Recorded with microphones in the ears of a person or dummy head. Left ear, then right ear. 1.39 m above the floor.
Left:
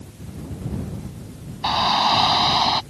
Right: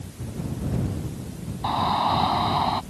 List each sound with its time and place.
1.6 s a shout: 75° left (ahead or behind)